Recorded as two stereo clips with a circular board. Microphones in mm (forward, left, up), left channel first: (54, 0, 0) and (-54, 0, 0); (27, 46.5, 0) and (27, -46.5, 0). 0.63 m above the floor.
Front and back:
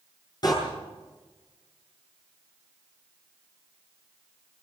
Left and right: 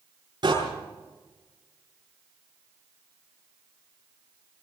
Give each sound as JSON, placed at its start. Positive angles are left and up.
{"t": 0.4, "sound": "a door slam", "azimuth_deg": -50, "distance_m": 8.5}